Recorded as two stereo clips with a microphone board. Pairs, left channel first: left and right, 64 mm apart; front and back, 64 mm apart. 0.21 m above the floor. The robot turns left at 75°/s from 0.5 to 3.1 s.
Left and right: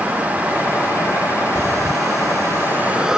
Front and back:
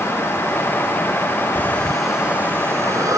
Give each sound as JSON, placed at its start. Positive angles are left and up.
{"t": 1.6, "sound": "breathing", "azimuth_deg": -55}